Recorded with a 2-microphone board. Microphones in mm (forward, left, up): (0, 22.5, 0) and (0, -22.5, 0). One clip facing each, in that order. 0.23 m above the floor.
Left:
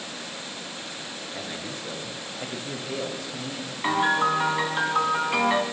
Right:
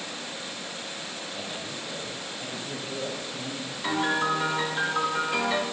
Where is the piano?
35° left (ahead or behind), 2.5 m.